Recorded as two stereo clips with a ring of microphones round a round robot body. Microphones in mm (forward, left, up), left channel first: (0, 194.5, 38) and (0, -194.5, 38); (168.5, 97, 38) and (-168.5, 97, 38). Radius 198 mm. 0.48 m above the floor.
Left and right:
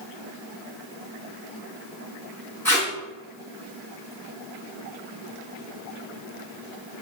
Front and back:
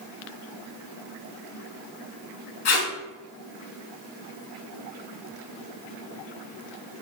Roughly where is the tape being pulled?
Ahead.